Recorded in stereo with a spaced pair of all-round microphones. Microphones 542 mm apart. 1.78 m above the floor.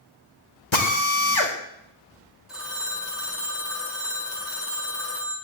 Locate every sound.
0.7 s a drill: 55° left (ahead or behind), 2.5 m
2.5 s a phone ringing: centre (ahead or behind), 4 m